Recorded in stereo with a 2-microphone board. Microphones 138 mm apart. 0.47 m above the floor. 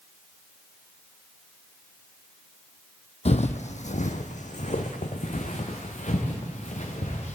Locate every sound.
3.2 s footsteps: 55° left (ahead or behind), 0.7 m